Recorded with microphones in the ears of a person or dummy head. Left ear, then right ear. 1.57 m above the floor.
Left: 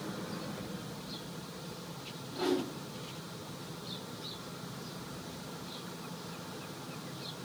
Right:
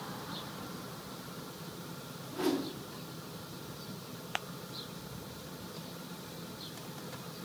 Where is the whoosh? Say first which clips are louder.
Left 1 dB; 30° right (ahead or behind), 2 m.